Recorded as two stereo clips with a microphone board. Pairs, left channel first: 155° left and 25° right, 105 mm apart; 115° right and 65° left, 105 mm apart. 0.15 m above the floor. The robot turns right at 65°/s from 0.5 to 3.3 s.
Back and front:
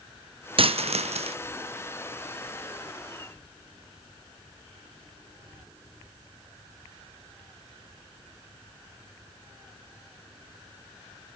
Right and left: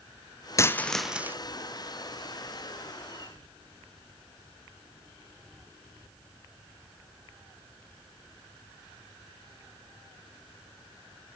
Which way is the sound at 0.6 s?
50° right.